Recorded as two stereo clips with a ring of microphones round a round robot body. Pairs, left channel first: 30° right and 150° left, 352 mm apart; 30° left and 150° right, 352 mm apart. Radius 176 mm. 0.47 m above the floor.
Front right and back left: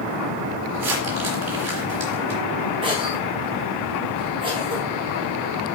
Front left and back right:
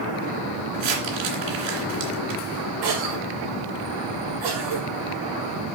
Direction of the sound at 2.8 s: 140° right.